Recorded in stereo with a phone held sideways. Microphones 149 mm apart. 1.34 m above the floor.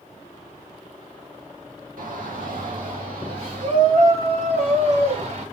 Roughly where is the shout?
Right.